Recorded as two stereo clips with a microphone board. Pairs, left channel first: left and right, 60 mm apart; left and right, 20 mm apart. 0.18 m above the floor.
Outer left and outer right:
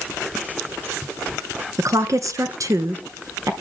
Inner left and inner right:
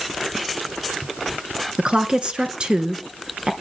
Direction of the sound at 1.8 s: 60° right (ahead or behind).